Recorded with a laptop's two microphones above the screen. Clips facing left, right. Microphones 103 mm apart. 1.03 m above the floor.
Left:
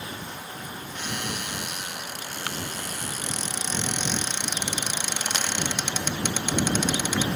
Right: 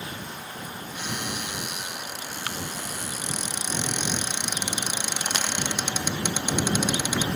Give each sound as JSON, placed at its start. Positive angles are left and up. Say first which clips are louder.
{"t": 0.9, "sound": "a cupboard door", "louder": "even", "side_deg": -10}